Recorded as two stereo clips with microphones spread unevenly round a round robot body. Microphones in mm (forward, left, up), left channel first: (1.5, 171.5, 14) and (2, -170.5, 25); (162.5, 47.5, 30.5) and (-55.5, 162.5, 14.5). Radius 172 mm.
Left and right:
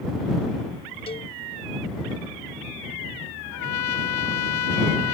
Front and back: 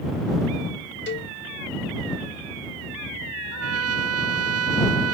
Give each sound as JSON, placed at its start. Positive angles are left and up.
{"t": 1.1, "sound": "a cowbell", "azimuth_deg": 15}
{"t": 3.5, "sound": "a trumpet", "azimuth_deg": 130}